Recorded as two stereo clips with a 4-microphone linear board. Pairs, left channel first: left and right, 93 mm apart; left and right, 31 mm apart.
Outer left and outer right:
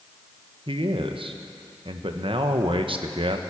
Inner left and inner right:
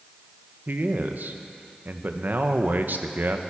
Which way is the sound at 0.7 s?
80° right.